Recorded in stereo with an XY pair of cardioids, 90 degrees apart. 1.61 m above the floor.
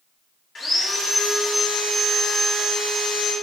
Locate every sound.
0.6 s sawing: 45° left, 1.8 m